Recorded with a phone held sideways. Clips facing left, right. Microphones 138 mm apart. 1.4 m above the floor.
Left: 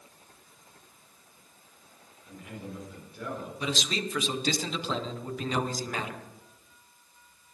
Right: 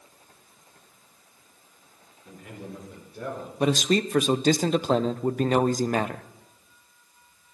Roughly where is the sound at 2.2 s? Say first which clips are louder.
Right 1 dB; right.